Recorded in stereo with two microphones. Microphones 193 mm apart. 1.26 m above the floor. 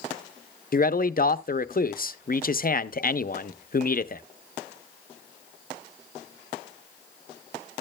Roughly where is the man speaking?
Left.